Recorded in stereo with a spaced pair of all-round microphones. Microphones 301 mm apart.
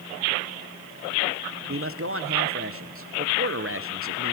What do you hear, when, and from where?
1.7 s a man speaking: 45° right (ahead or behind), 1.5 m